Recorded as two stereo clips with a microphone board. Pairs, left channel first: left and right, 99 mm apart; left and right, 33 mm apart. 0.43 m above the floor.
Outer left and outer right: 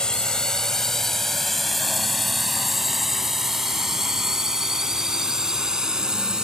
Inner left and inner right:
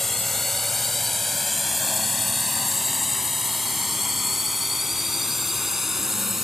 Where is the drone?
10° left (ahead or behind); by 6.4 s 5° right (ahead or behind).